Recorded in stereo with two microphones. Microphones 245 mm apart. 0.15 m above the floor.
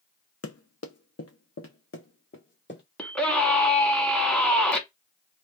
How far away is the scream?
About 1.1 m.